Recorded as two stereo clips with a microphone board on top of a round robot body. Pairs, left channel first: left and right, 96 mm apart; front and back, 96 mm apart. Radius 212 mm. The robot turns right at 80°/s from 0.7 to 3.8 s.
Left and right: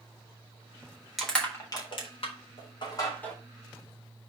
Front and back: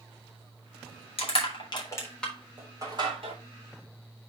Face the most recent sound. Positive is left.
turn(degrees=-155)